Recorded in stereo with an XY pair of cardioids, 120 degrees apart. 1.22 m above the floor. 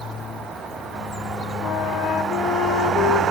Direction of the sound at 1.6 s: 65° left.